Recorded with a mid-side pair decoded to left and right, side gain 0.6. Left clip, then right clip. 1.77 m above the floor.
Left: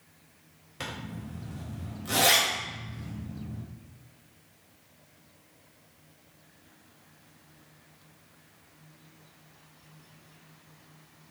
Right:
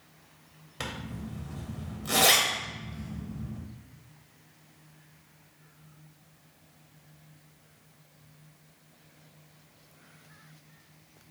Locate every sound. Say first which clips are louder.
0.8 s a zipper: right 1 dB; 20° right, 0.9 m